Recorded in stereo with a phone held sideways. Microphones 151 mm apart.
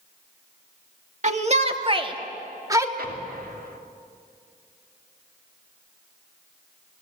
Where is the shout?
50° right (ahead or behind), 2 m; by 2.9 s 20° right (ahead or behind), 2.5 m.